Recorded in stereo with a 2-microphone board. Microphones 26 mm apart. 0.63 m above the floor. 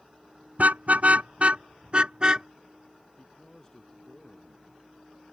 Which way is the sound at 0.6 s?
75° right (ahead or behind).